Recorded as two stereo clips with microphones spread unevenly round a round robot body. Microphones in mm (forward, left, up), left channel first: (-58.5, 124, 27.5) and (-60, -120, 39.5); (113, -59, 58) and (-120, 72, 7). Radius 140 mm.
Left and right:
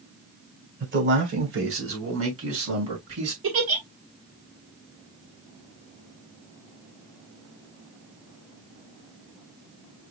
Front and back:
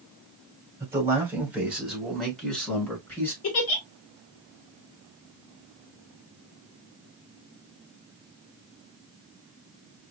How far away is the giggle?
About 2.5 m.